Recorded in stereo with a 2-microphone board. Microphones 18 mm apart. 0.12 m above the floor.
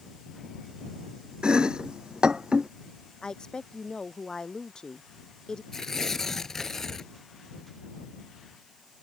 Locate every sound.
1.4 s chopping: 50° right (ahead or behind)
3.2 s a woman speaking: 40° left (ahead or behind)
5.7 s tearing paper: 25° left (ahead or behind)